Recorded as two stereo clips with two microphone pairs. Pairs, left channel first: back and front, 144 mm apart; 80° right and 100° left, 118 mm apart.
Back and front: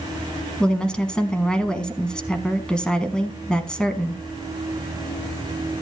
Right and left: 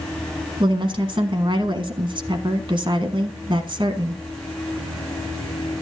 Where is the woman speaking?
95° left, 1.5 m.